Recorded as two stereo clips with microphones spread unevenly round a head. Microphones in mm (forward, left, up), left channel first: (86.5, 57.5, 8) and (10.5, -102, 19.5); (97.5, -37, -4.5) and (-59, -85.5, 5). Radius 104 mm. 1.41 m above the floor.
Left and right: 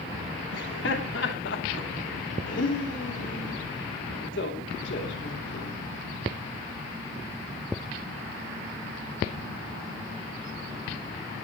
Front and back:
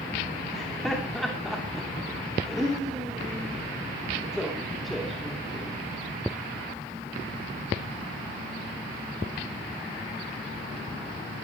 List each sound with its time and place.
0.5 s laughter: 105° left, 3 m